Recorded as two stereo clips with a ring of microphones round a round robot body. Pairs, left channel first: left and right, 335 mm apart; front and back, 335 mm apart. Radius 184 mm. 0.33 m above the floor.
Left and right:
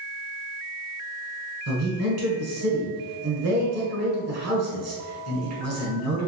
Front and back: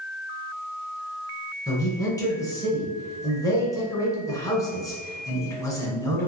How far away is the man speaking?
About 1.3 m.